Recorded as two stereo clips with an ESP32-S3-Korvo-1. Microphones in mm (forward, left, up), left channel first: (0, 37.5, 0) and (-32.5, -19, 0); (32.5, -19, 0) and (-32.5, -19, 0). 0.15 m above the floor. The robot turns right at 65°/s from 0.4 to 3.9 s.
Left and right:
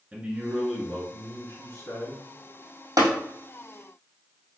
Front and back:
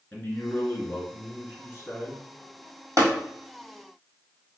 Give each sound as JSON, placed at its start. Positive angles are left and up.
{"t": 0.1, "sound": "a man speaking", "azimuth_deg": -45, "distance_m": 1.9}
{"t": 3.0, "sound": "tapping", "azimuth_deg": -145, "distance_m": 1.4}